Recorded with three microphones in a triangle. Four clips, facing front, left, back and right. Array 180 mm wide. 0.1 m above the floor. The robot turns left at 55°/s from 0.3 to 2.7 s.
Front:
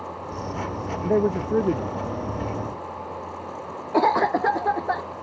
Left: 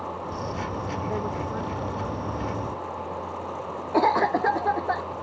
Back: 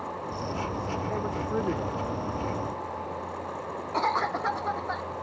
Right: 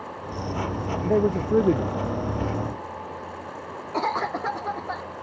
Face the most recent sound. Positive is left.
turn(degrees=30)